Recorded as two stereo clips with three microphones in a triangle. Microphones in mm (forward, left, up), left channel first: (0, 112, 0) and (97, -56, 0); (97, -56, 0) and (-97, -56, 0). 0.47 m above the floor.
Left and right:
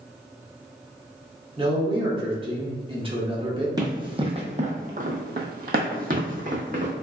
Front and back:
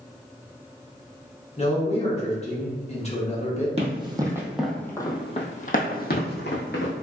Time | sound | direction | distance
1.6 | a man speaking | 20° right | 1.0 m
3.8 | running footsteps | 125° right | 0.8 m